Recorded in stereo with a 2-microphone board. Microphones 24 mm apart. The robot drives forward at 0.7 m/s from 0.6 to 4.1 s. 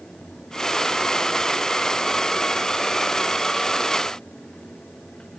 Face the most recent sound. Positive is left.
No sound to turn to.